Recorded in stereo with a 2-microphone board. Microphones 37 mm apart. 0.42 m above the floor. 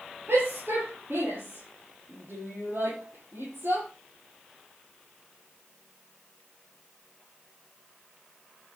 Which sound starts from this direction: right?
A shout, at 0.3 s.